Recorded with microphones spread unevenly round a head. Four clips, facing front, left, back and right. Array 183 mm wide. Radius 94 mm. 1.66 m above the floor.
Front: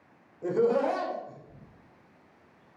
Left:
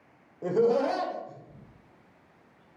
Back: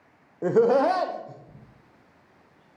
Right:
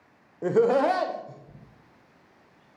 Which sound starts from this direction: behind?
Laughter, at 0.4 s.